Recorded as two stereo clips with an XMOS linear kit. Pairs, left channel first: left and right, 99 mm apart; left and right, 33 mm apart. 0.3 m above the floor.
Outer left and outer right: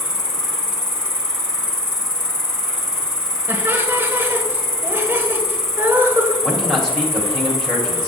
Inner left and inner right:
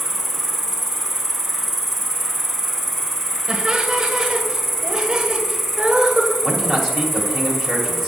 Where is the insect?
5° left (ahead or behind), 1.2 m.